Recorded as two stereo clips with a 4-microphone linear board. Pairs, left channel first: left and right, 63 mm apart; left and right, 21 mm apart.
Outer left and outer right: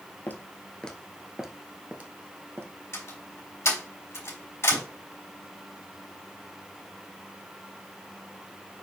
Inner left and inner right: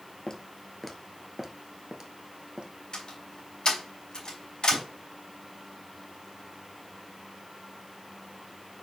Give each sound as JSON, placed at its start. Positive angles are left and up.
{"t": 0.3, "sound": "footsteps", "side_deg": 30, "distance_m": 1.2}
{"t": 2.9, "sound": "a door slam", "side_deg": 45, "distance_m": 3.5}